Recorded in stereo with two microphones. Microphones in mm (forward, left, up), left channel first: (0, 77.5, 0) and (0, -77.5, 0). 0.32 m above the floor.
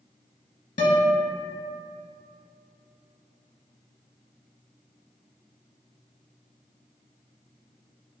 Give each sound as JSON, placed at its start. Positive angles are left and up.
{"t": 0.8, "sound": "a guitar", "side_deg": 60, "distance_m": 0.6}